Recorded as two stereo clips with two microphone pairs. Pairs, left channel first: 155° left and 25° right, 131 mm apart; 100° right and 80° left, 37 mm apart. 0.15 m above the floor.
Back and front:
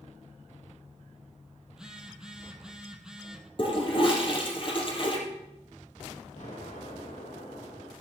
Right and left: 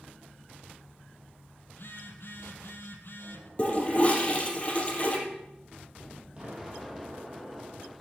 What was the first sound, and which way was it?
A phone buzzing, 110° right.